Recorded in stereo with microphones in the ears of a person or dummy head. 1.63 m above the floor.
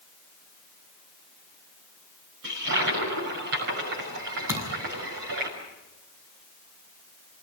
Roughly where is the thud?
Centre.